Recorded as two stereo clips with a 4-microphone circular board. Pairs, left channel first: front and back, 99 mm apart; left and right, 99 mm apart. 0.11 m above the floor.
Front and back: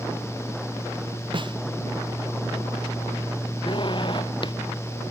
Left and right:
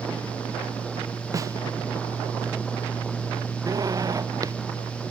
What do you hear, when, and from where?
1.3 s a snare drum: 145° right
3.7 s a zipper: 35° right